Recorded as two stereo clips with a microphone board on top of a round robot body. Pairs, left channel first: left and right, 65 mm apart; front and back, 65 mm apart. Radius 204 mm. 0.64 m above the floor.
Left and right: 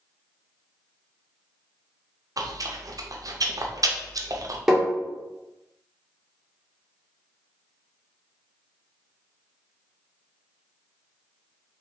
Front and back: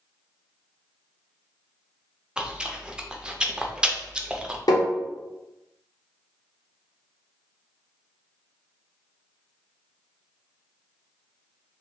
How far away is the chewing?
About 0.7 m.